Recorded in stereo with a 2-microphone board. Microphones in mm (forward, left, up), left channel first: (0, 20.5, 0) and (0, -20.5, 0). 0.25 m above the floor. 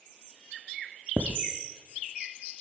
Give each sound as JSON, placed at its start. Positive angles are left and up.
{"t": 1.2, "sound": "writing", "side_deg": -50, "distance_m": 0.8}